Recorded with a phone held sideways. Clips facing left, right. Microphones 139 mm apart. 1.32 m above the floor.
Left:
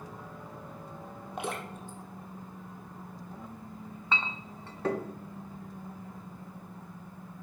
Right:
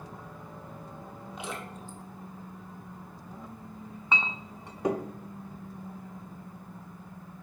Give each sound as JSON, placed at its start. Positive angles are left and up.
{"t": 1.4, "sound": "dripping", "side_deg": 60, "distance_m": 1.6}
{"t": 4.1, "sound": "a clink", "side_deg": -15, "distance_m": 0.6}